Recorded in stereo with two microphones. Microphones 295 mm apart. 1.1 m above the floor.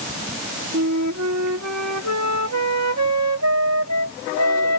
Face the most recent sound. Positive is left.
turn(degrees=-65)  # may be behind; listen again after turning